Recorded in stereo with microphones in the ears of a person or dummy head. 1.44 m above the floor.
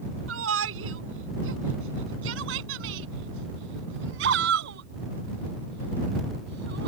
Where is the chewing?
I don't hear chewing.